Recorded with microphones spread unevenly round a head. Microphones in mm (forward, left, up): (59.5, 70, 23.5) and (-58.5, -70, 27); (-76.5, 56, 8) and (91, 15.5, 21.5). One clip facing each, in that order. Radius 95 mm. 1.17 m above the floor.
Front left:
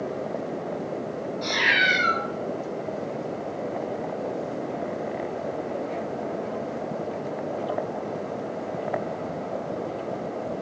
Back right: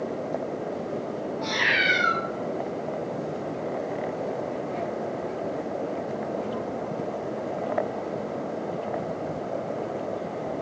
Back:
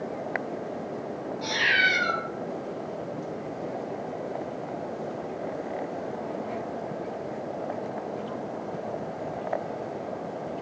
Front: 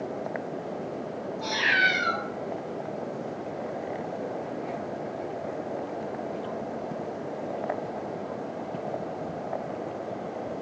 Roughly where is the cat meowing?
Left.